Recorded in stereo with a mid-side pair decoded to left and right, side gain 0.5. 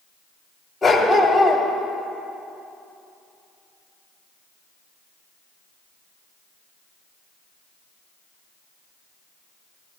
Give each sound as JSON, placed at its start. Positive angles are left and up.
{"t": 0.8, "sound": "a dog barking", "azimuth_deg": 20, "distance_m": 2.0}